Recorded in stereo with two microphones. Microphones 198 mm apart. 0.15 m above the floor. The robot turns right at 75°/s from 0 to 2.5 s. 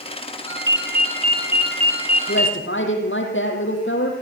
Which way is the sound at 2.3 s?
75° left (ahead or behind).